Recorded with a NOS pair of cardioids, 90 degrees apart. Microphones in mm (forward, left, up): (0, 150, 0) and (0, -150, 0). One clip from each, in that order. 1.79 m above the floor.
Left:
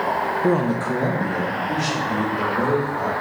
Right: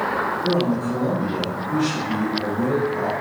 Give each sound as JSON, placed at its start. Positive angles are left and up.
{"t": 0.4, "sound": "a man speaking", "azimuth_deg": 60, "distance_m": 0.5}